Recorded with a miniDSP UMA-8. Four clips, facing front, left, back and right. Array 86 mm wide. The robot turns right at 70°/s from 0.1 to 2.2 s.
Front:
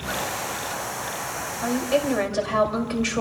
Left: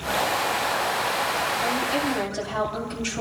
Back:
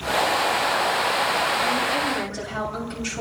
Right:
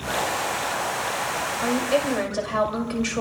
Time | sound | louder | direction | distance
1.6 | a woman speaking | right 2 dB, even | 75° right | 5.5 m